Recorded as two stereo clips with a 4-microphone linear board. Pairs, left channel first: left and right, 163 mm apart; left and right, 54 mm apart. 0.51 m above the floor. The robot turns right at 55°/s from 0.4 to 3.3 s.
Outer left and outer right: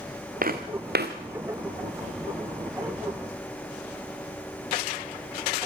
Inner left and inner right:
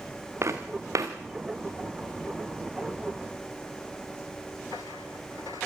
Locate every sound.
0.4 s footsteps: 60° right (ahead or behind), 2.5 m; by 1.1 s 75° right (ahead or behind), 2.5 m